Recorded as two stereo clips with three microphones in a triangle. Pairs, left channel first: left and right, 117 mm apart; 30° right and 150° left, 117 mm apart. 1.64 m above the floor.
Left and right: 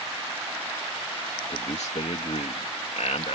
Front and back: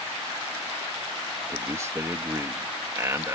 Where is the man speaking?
85° left.